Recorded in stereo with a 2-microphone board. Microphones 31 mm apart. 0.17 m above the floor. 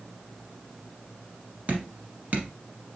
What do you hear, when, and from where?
1.7 s dripping: 45° right (ahead or behind), 1.1 m